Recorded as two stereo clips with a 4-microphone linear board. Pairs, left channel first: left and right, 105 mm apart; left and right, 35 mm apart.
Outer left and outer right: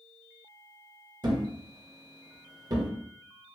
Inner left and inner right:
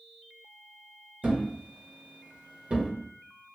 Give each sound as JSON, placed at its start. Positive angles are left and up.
{"t": 1.2, "sound": "a thud", "side_deg": -40, "distance_m": 0.7}